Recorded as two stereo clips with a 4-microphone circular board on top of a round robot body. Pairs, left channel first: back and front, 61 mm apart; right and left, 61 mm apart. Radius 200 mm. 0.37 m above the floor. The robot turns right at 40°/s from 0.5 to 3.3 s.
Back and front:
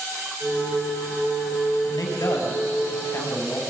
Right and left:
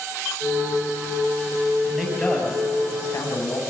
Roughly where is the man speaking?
Behind.